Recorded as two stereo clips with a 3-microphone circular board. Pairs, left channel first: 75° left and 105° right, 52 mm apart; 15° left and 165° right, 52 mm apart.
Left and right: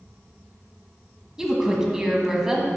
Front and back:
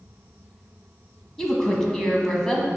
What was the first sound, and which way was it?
A woman speaking, 45° right.